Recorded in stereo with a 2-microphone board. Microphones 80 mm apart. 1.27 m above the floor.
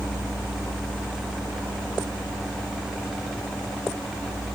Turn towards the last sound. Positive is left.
No sound to turn to.